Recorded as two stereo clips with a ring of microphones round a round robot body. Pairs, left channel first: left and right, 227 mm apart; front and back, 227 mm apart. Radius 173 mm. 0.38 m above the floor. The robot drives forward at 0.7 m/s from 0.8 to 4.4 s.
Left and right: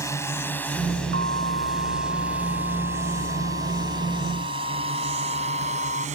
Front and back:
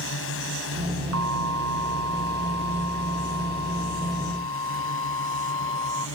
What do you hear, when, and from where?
0.0 s a drone: 15° left; by 6.2 s 35° right
1.1 s an alarm: 145° right; by 6.1 s 150° right